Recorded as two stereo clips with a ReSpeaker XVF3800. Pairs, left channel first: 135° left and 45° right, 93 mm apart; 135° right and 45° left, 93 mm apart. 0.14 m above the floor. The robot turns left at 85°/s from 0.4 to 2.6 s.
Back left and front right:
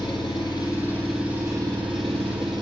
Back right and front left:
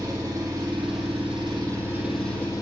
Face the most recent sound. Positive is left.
turn(degrees=-80)